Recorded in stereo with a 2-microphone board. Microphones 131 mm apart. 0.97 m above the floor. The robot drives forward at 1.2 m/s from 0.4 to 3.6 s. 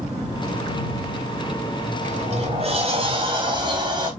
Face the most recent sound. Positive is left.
turn(degrees=-40)  # may be behind; listen again after turning